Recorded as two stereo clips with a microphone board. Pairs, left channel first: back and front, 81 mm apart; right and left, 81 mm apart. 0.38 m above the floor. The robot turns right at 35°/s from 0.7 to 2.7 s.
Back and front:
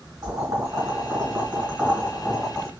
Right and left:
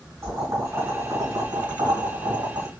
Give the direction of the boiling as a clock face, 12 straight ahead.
11 o'clock.